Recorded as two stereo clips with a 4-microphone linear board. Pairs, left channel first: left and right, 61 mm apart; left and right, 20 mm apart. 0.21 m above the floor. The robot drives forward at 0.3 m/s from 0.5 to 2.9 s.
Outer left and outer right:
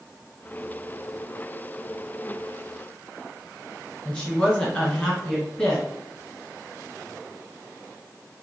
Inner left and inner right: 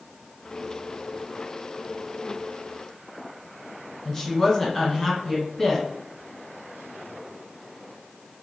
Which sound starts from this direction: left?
A woman speaking, at 4.0 s.